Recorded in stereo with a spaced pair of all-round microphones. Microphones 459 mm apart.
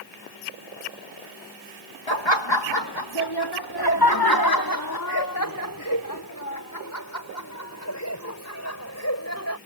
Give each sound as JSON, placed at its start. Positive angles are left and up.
{"t": 2.1, "sound": "laughter", "side_deg": 70}